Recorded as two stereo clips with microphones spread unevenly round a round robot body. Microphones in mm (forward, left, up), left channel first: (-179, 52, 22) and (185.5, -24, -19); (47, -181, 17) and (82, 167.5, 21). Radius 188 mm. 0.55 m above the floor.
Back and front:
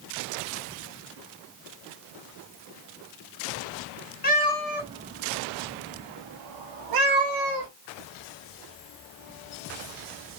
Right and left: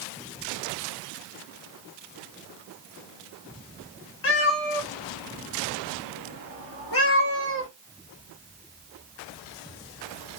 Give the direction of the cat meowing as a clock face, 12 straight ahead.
5 o'clock.